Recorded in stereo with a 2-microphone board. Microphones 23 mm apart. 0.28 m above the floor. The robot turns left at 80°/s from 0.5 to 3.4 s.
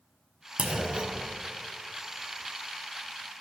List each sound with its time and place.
0.6 s a clunk: 85° right, 1.4 m; by 1.4 s 145° right, 1.4 m